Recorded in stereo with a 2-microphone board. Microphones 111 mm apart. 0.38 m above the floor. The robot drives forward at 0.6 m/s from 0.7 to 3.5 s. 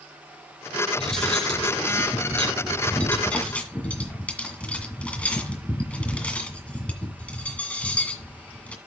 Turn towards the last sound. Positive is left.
turn(degrees=10)  # may be behind; listen again after turning